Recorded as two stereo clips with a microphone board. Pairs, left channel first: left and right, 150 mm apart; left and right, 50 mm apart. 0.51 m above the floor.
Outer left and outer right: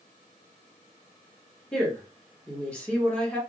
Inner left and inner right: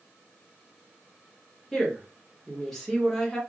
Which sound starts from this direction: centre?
A woman speaking, at 1.7 s.